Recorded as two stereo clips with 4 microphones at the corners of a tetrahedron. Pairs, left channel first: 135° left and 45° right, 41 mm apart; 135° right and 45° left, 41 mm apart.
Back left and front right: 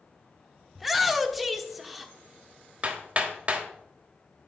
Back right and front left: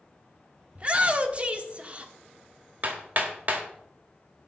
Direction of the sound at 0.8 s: 40° left.